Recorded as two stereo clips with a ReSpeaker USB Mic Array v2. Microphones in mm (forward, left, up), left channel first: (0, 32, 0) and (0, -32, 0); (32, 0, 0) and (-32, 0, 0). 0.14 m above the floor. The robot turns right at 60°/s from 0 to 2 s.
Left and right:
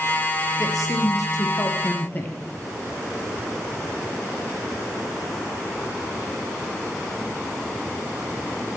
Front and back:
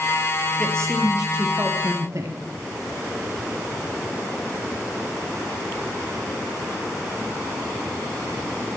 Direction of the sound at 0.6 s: 65° left.